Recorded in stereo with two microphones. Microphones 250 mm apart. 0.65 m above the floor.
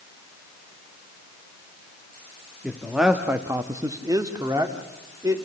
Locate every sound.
2.6 s a man speaking: centre (ahead or behind), 1.5 m; by 5.4 s 10° right (ahead or behind), 2.5 m